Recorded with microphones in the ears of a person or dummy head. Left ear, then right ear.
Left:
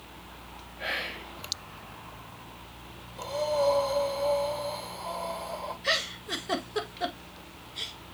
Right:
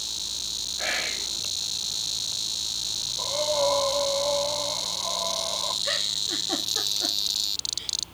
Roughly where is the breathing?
Centre.